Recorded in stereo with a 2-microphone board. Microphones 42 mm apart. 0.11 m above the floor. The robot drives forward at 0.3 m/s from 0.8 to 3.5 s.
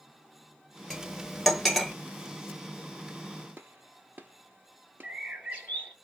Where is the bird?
35° right (ahead or behind), 2 m.